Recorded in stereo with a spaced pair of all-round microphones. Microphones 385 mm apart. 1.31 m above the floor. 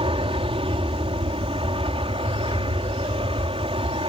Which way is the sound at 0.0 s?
15° right (ahead or behind).